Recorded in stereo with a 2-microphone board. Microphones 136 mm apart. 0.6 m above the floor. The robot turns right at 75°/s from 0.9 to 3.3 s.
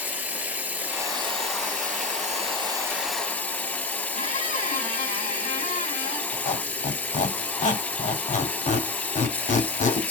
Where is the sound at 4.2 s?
75° left (ahead or behind), 2 m.